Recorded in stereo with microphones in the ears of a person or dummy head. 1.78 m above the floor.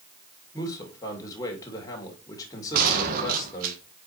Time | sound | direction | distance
0.5 | a man speaking | 20° left (ahead or behind) | 2 m
2.7 | a gunshot | 55° right (ahead or behind) | 1.4 m